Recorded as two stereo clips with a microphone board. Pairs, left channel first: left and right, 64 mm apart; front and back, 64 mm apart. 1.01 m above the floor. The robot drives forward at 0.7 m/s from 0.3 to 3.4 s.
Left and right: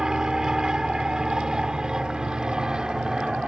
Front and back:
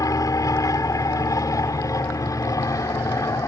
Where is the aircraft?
10° right.